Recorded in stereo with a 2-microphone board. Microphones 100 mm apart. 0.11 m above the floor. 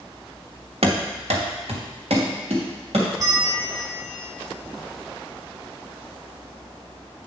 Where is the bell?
35° right (ahead or behind), 1.9 m.